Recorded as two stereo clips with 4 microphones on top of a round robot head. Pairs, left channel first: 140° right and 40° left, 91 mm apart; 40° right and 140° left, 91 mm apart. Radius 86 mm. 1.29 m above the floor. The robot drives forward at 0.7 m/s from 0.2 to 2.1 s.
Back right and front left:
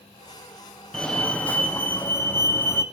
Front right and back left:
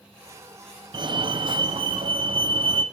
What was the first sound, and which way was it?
A fire alarm, 140° left.